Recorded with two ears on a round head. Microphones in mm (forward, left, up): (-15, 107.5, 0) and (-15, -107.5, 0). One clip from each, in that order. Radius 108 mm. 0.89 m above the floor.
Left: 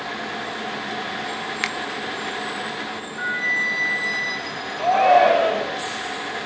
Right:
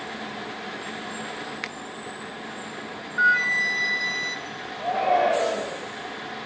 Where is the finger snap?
20° left (ahead or behind), 0.6 m.